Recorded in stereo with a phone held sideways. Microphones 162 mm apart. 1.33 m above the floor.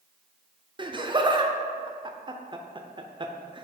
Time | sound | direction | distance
0.8 | laughter | 30° right (ahead or behind) | 0.5 m